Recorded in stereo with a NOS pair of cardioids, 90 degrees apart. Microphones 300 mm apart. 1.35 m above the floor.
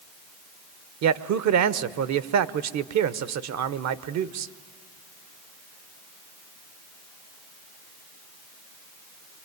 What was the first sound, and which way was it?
A man speaking, 65° right.